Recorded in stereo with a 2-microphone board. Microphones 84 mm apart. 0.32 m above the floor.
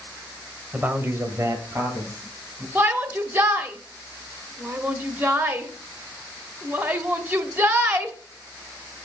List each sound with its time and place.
0.7 s a man speaking: 20° right (ahead or behind), 1.1 m; by 2.6 s 35° right (ahead or behind), 2.5 m
2.8 s a shout: 25° right (ahead or behind), 0.9 m